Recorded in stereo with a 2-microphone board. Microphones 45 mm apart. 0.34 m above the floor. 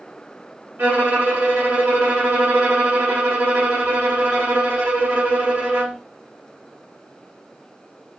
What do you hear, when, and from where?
0.8 s a violin: 30° right (ahead or behind), 1.3 m